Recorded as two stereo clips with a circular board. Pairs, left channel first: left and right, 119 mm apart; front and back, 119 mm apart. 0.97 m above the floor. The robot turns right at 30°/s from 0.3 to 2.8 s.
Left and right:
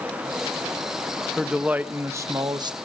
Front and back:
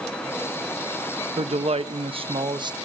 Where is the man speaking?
175° right, 1.0 m; by 2.8 s 135° right, 1.0 m.